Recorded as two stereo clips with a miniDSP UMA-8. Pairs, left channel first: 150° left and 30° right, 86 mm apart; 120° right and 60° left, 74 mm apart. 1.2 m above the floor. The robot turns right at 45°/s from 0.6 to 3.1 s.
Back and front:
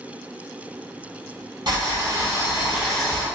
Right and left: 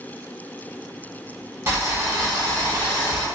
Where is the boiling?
Straight ahead, 1.0 m; by 3.2 s 65° left, 1.0 m.